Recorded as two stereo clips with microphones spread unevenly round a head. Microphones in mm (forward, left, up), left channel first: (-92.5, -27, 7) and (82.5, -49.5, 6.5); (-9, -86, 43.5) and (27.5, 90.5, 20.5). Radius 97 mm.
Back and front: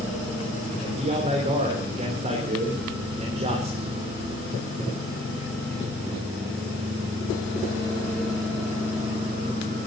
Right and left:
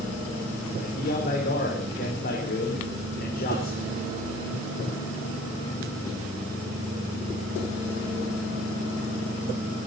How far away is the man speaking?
About 4 m.